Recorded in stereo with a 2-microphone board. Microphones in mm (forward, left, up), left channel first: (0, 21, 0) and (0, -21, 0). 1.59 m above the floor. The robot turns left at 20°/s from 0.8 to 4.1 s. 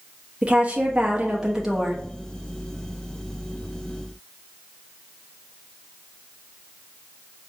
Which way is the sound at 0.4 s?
30° right (ahead or behind).